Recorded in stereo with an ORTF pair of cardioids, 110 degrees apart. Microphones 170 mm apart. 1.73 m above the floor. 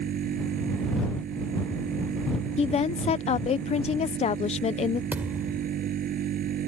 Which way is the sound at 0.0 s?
55° right.